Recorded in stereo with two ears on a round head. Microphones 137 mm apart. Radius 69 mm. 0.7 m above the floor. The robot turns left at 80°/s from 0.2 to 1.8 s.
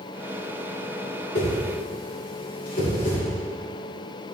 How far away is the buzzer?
No buzzer in this recording.